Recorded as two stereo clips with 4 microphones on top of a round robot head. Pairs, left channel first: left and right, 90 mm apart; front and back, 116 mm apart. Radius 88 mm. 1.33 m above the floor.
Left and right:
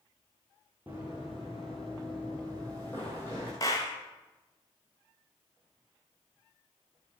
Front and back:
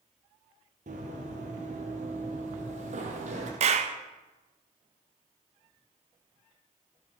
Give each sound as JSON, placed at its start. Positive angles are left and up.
{"t": 0.9, "sound": "running footsteps", "azimuth_deg": -170, "distance_m": 2.0}
{"t": 3.6, "sound": "a clap", "azimuth_deg": 160, "distance_m": 0.8}